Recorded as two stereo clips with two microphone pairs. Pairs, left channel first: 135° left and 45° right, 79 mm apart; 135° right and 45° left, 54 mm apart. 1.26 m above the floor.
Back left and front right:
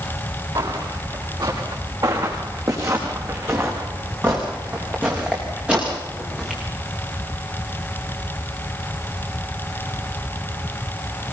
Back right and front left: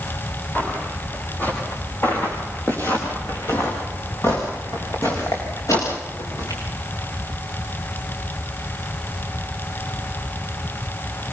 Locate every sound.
0.6 s footsteps: 75° right, 8.5 m; by 6.6 s 130° right, 8.5 m